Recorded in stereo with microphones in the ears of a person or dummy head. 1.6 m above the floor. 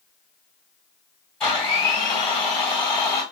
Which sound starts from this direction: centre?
A blender, at 1.4 s.